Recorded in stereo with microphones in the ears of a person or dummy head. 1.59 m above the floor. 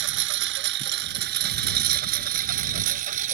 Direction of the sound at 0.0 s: 70° right (ahead or behind).